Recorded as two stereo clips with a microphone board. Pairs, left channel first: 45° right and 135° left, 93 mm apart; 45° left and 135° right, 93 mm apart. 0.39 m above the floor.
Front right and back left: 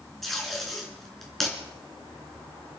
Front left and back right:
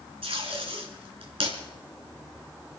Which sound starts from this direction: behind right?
Tape being pulled, at 0.2 s.